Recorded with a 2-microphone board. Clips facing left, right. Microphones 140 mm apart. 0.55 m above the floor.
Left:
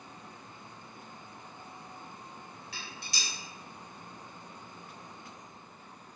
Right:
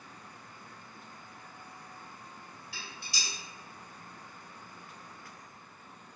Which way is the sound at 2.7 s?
75° left (ahead or behind).